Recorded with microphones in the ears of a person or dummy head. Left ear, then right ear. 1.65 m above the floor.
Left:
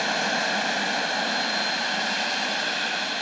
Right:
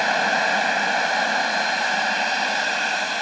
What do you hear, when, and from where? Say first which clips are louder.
0.0 s a machine running: right 5 dB; 30° right (ahead or behind)